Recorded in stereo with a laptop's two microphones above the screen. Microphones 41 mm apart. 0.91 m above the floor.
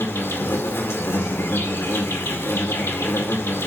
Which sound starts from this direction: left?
An insect, at 0.0 s.